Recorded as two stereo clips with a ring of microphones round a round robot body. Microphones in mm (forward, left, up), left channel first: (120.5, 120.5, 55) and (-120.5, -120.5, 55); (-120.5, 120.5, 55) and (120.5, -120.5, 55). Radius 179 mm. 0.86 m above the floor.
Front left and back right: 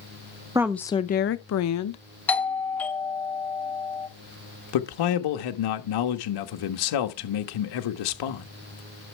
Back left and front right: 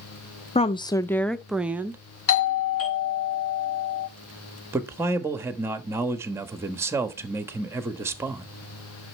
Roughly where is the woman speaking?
Behind.